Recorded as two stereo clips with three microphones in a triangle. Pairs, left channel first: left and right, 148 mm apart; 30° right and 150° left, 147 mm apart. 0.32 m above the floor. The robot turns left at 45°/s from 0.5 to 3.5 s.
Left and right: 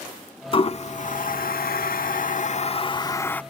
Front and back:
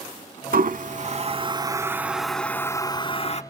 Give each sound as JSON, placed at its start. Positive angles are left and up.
{"t": 0.5, "sound": "a toilet flushing", "azimuth_deg": 140, "distance_m": 0.5}